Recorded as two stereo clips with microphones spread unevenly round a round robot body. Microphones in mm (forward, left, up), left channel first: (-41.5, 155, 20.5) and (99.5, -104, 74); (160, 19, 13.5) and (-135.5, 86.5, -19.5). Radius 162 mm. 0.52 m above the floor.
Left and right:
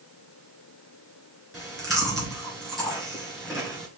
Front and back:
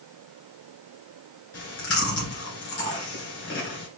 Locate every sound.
1.5 s chewing: 35° left, 2.5 m